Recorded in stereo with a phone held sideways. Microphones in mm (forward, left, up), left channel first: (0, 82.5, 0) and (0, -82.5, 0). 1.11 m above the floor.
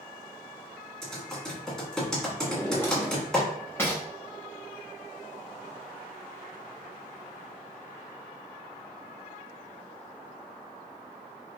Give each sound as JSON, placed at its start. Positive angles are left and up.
{"t": 1.0, "sound": "typing on a keyboard", "side_deg": 5, "distance_m": 1.6}
{"t": 2.5, "sound": "a drawer", "side_deg": 15, "distance_m": 0.9}